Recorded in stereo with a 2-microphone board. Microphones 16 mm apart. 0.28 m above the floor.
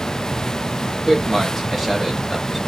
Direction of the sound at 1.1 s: 10° right (ahead or behind).